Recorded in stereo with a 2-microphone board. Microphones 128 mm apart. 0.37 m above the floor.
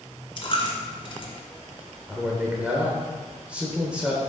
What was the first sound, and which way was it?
A dropped coin, 45° left (ahead or behind).